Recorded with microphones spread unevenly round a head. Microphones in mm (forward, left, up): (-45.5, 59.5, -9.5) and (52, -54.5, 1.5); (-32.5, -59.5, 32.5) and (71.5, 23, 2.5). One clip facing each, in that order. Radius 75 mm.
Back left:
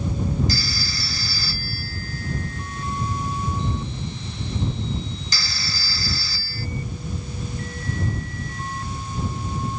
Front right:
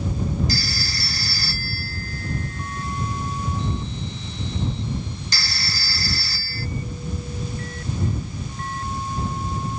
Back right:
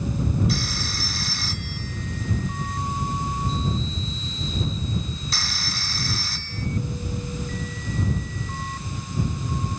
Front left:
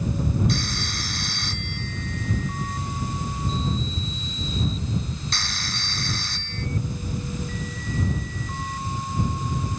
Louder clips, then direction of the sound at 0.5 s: Even, even; 135° left.